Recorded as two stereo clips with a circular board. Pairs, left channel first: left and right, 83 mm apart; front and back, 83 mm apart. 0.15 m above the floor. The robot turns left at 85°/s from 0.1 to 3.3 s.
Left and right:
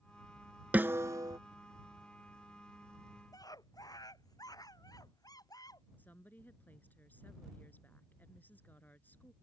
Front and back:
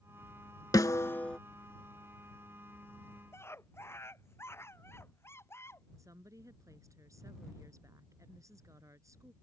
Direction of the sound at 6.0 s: 150° left.